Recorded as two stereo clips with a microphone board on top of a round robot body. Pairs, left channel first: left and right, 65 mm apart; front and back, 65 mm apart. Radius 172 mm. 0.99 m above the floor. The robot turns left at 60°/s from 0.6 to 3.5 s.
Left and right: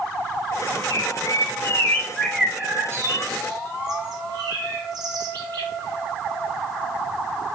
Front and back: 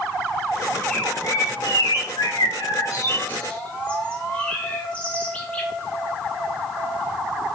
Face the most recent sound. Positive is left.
turn(degrees=-70)